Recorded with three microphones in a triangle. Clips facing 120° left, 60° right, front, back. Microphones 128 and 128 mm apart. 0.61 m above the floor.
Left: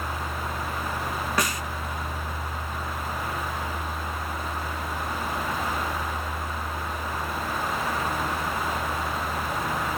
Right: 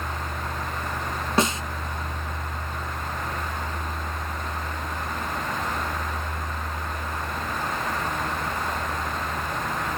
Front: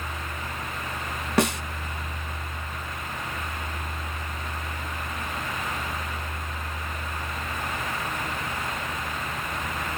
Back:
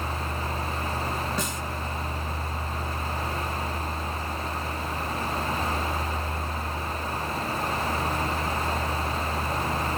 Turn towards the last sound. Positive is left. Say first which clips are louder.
# right 6 dB, front 8 dB
turn(degrees=5)